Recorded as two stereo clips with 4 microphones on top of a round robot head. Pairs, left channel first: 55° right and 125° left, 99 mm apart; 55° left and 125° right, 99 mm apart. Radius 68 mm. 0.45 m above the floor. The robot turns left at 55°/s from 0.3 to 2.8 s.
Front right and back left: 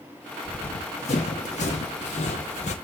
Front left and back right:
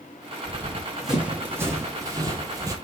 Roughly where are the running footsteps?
Ahead.